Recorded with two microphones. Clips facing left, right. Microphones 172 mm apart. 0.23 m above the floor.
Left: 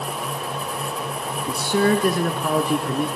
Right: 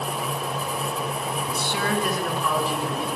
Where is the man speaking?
40° left (ahead or behind), 2 m; by 3.1 s 55° left (ahead or behind), 3 m.